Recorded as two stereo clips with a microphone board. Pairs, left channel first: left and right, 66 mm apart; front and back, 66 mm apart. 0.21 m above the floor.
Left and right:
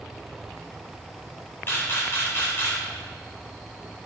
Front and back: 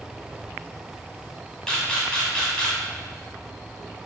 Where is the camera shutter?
70° left, 1.2 m.